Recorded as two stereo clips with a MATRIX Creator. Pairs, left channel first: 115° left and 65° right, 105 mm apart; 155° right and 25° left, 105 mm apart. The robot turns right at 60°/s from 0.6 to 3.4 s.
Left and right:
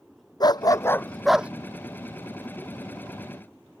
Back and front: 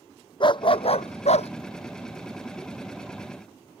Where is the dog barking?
160° left; by 1.5 s 145° right.